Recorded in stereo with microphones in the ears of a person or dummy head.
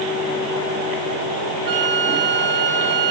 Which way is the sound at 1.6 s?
25° right (ahead or behind).